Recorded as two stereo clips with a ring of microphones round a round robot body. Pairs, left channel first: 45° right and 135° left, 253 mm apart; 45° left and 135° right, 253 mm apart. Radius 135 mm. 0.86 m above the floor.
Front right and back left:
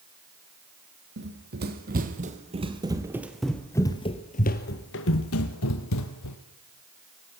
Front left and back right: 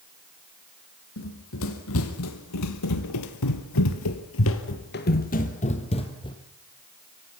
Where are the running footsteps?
85° left, 2.5 m; by 6.4 s 30° right, 2.5 m.